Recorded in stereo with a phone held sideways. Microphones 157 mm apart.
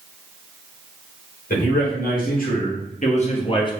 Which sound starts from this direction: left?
A man speaking, at 1.5 s.